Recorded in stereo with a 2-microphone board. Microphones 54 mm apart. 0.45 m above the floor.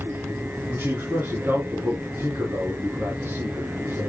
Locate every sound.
0.7 s a man speaking: 50° right (ahead or behind), 3 m